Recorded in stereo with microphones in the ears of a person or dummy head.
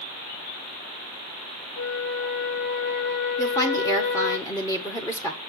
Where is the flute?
50° left (ahead or behind), 2.5 m.